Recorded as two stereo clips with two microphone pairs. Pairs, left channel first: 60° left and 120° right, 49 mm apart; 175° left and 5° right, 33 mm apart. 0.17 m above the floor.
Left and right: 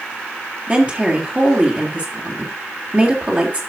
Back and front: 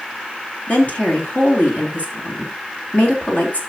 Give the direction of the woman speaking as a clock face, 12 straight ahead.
6 o'clock.